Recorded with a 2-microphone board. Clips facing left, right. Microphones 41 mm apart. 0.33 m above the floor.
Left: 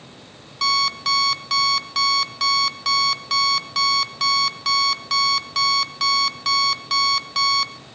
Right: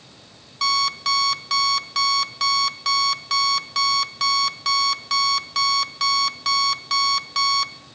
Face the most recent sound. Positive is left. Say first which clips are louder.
# left 1 dB
turn(degrees=0)  # may be behind; listen again after turning